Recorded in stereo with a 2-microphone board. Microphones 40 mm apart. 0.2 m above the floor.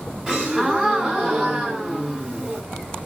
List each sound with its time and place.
0.3 s a gasp: 15° right (ahead or behind), 1.5 m